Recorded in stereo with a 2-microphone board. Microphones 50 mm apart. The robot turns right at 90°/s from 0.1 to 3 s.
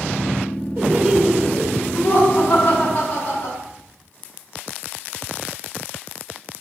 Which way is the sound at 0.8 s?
55° right.